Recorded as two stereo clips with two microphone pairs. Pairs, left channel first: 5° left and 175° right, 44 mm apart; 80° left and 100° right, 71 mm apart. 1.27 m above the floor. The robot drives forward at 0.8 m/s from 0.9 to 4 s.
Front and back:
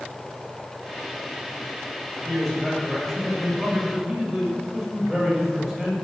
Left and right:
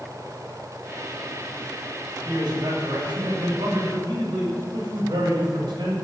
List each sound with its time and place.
2.2 s a man speaking: 85° right, 7 m; by 6.0 s 95° right, 7 m